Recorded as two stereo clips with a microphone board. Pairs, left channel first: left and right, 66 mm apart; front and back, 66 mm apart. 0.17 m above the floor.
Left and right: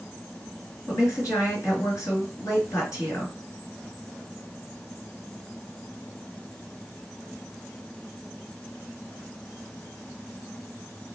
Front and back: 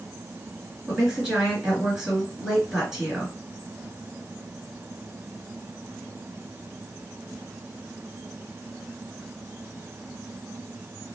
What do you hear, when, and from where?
0.9 s a woman speaking: 100° left, 1.9 m